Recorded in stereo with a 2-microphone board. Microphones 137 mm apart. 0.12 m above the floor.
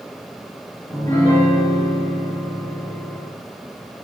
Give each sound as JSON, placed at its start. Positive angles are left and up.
{"t": 0.9, "sound": "a piano", "side_deg": 20, "distance_m": 5.5}